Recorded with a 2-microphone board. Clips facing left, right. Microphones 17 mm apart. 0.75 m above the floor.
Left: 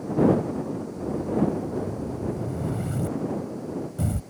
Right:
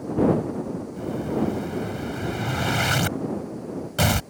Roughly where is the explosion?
Right.